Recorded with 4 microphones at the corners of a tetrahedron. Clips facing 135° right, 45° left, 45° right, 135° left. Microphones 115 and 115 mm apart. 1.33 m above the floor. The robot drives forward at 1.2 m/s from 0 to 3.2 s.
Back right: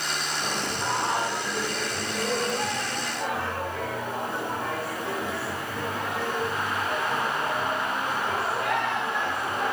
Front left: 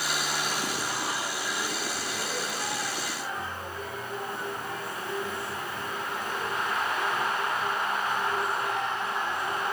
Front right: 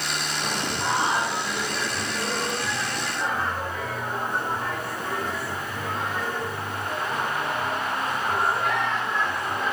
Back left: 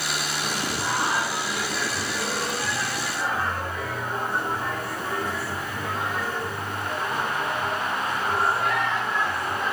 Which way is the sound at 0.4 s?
105° right.